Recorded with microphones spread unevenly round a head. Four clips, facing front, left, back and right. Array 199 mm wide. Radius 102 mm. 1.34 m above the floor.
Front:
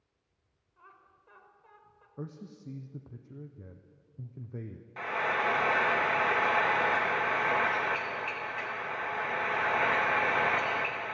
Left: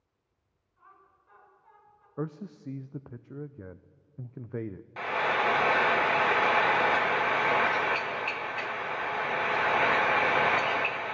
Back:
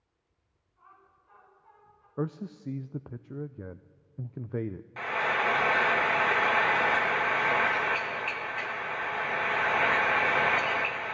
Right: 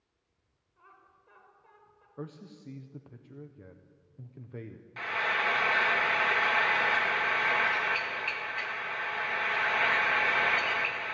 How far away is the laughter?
About 5.5 m.